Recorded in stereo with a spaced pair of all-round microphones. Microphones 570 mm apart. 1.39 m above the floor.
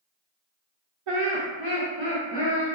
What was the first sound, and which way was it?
Laughter, 65° right (ahead or behind).